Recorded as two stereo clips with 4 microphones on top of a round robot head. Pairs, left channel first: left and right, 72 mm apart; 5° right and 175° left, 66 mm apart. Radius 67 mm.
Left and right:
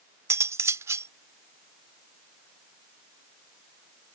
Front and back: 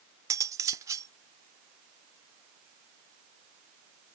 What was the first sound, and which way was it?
Cutlery clinking, 140° right.